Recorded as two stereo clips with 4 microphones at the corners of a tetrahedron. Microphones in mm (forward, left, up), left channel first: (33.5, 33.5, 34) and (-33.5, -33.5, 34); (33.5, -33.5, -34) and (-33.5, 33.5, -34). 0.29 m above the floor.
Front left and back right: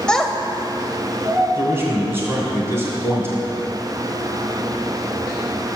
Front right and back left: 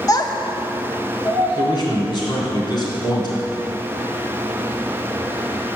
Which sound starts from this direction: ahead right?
A child speaking, at 0.1 s.